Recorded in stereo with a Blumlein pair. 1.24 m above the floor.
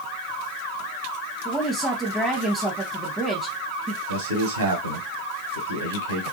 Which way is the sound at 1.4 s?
Straight ahead.